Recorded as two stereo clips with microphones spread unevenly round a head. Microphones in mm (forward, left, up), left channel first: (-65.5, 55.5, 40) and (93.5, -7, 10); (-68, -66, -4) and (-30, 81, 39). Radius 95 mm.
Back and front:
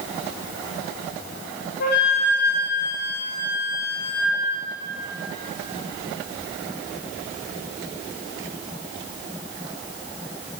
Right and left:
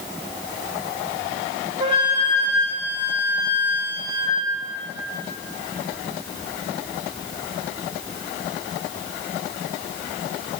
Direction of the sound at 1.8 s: 130° left.